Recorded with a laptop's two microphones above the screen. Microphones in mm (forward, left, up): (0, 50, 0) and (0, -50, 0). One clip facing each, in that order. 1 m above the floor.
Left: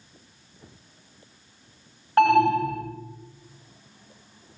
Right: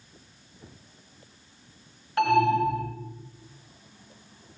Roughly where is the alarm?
Left.